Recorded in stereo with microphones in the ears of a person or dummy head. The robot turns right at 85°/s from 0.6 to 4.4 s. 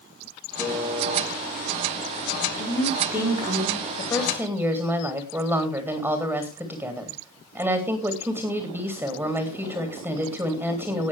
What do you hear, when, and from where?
0.6 s a piano: 170° left, 6 m; by 1.2 s 145° right, 6 m
2.6 s a woman speaking: 140° left, 4 m; by 3.8 s 115° right, 4 m
4.0 s a woman speaking: 150° left, 3 m; by 11.1 s 175° right, 3 m